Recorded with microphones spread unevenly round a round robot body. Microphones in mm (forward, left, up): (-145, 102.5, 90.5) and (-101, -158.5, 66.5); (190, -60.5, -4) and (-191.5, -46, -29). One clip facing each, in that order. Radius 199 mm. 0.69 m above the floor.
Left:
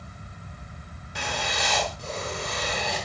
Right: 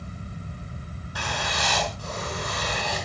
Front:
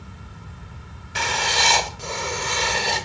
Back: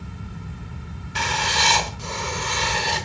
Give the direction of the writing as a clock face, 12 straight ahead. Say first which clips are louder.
Even, front 1 dB; 11 o'clock.